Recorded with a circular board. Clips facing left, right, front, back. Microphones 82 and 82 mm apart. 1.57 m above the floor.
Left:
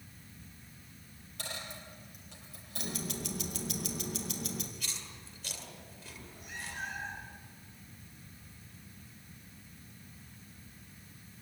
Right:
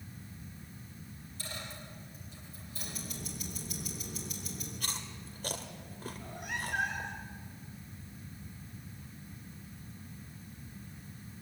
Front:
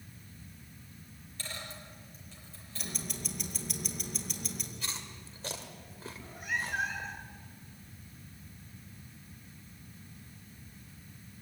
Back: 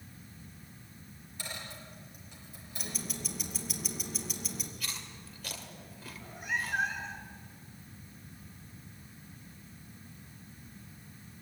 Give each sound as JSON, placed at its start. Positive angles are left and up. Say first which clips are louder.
{"t": 1.4, "sound": "a dropped coin", "louder": "left 1 dB, even", "azimuth_deg": 105, "distance_m": 6.5}
{"t": 2.8, "sound": "ticking", "louder": "left 6 dB, back 1 dB", "azimuth_deg": 95, "distance_m": 2.5}
{"t": 4.8, "sound": "chewing", "louder": "right 4 dB, front 1 dB", "azimuth_deg": -55, "distance_m": 2.0}
{"t": 6.1, "sound": "a cat meowing", "louder": "right 6 dB, back 1 dB", "azimuth_deg": -90, "distance_m": 3.0}